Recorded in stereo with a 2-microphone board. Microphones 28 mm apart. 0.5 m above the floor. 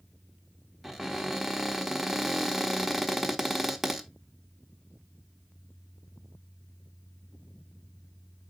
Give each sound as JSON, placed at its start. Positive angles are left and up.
{"t": 0.8, "sound": "a cupboard door", "side_deg": -5, "distance_m": 0.9}